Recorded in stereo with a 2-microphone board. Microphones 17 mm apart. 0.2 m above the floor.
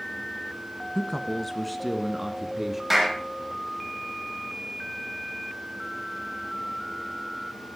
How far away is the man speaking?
About 1.5 m.